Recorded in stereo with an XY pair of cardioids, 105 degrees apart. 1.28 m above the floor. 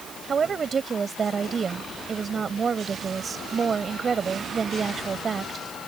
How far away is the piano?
I don't hear a piano.